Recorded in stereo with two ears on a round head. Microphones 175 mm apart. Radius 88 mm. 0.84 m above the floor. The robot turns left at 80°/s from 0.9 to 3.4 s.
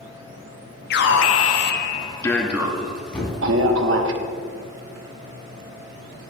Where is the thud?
5° left (ahead or behind), 3 m; by 3.4 s 25° left (ahead or behind), 3 m.